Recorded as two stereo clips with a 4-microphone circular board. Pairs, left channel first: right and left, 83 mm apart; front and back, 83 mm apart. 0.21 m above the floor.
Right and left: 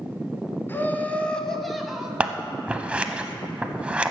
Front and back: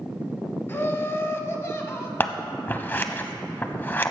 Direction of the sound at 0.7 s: 45° right.